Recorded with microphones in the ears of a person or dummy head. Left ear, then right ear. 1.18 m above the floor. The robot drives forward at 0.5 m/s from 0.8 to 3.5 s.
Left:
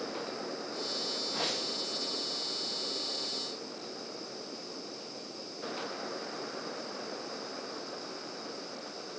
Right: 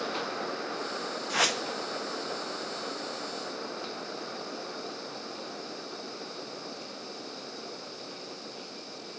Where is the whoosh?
55° right (ahead or behind), 0.6 m; by 1.6 s 45° right (ahead or behind), 0.7 m.